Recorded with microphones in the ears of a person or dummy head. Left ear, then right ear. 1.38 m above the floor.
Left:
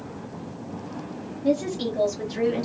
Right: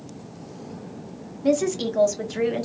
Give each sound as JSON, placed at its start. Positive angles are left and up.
{"t": 1.4, "sound": "a woman speaking", "side_deg": -70, "distance_m": 0.9}